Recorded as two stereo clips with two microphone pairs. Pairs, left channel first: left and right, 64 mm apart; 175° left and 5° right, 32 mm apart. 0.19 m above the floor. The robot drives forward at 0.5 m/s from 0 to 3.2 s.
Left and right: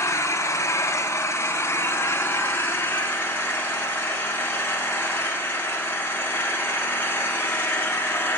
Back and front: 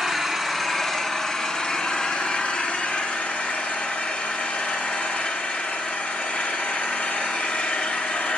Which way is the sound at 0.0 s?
65° left.